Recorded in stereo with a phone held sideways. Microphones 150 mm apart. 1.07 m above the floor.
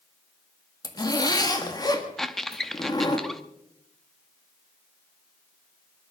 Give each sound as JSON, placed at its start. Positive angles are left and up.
{"t": 0.8, "sound": "a zipper", "side_deg": 30, "distance_m": 1.8}
{"t": 2.2, "sound": "a squeak", "side_deg": 5, "distance_m": 0.8}